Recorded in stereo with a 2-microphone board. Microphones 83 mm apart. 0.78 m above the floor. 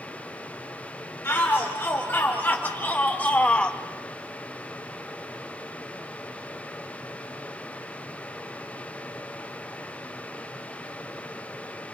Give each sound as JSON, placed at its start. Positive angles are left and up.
{"t": 1.2, "sound": "a shout", "side_deg": 25, "distance_m": 2.5}